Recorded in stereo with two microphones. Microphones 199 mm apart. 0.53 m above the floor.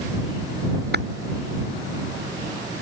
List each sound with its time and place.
0.9 s tapping: 55° right (ahead or behind)